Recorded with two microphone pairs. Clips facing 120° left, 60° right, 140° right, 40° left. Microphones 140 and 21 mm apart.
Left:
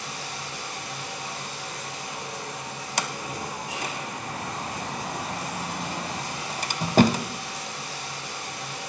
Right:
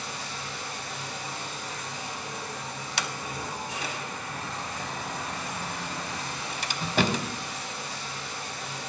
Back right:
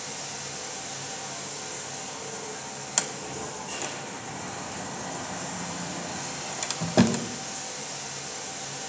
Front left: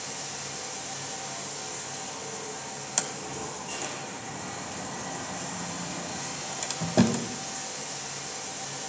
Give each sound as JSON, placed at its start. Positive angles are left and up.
{"t": 0.0, "sound": "running water", "azimuth_deg": 130, "distance_m": 4.5}
{"t": 3.0, "sound": "a sliding door", "azimuth_deg": 150, "distance_m": 0.7}